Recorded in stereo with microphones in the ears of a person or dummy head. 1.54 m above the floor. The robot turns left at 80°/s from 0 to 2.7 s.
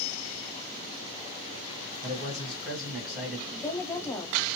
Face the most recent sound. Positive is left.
turn(degrees=15)  # may be behind; listen again after turning